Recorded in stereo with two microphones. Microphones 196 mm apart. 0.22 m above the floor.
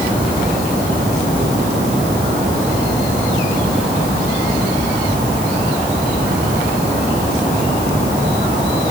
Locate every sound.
Only background noise.